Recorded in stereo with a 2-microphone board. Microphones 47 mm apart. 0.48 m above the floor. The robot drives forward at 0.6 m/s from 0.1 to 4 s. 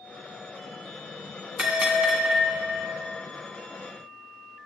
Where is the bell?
20° right (ahead or behind), 1.7 m; by 3.0 s 40° right (ahead or behind), 1.0 m.